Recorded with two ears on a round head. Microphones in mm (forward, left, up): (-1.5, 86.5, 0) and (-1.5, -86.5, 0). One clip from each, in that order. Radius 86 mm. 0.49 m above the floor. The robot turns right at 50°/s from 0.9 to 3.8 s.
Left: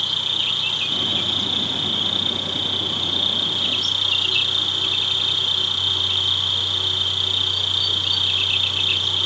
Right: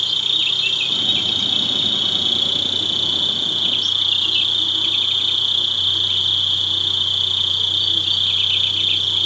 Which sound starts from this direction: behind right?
An insect, at 0.0 s.